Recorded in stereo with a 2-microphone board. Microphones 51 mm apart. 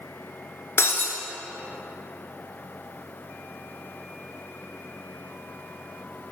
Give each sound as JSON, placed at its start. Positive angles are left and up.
{"t": 0.8, "sound": "breaking glass", "side_deg": 65, "distance_m": 0.9}